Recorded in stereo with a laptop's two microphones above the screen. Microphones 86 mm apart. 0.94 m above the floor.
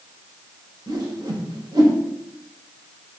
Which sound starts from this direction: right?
A whoosh, at 0.9 s.